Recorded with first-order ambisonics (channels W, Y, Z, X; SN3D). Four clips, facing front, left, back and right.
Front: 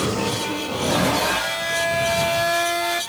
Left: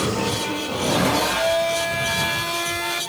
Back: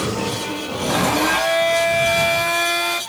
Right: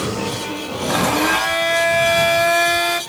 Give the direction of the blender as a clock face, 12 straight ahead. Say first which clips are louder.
Right 4 dB, back 3 dB; 4 o'clock.